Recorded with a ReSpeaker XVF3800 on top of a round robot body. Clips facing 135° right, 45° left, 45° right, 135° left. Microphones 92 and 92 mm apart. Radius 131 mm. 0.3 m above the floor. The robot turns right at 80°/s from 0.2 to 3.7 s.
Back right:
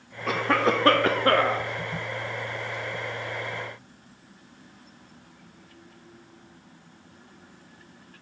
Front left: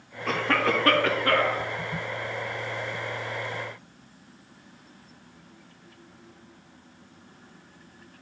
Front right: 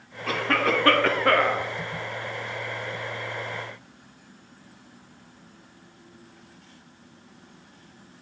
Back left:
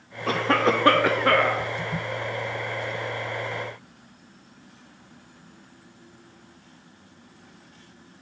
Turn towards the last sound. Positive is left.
turn(degrees=55)